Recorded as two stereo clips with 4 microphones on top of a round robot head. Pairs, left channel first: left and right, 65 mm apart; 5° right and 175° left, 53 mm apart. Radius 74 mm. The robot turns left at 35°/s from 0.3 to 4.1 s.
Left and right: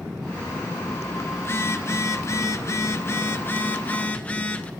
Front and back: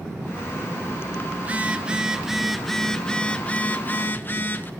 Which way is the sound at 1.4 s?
125° left.